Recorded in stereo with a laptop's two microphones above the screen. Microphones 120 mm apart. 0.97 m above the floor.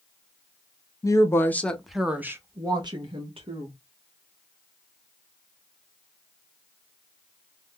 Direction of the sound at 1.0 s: 30° left (ahead or behind).